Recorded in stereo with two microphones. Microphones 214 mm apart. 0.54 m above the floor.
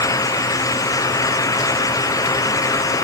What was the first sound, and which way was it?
Only background noise.